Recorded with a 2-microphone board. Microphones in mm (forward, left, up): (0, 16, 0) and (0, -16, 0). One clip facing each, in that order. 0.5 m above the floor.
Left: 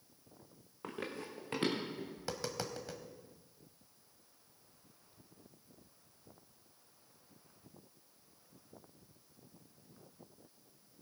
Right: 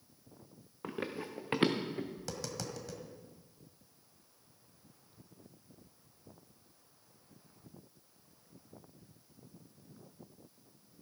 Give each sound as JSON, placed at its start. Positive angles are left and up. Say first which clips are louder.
{"t": 0.8, "sound": "running footsteps", "louder": "right 3 dB", "side_deg": -5, "distance_m": 1.6}
{"t": 2.2, "sound": "tapping", "louder": "left 1 dB", "side_deg": 25, "distance_m": 1.3}